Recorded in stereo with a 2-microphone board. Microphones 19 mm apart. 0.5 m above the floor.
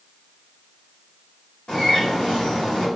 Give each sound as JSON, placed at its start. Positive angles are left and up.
{"t": 1.7, "sound": "a bird", "side_deg": 55, "distance_m": 1.9}